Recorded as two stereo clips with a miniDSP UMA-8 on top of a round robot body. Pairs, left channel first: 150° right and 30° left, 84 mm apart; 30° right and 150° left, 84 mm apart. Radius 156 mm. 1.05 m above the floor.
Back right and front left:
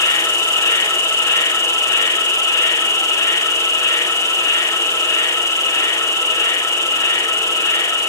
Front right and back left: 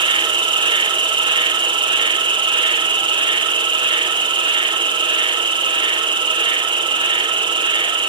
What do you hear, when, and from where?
0.0 s an insect: 160° left, 0.8 m